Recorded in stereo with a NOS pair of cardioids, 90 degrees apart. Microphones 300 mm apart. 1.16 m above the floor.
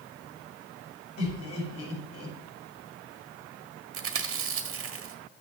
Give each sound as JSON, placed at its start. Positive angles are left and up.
{"t": 1.2, "sound": "laughter", "azimuth_deg": 55, "distance_m": 7.0}
{"t": 3.9, "sound": "chewing", "azimuth_deg": -45, "distance_m": 1.6}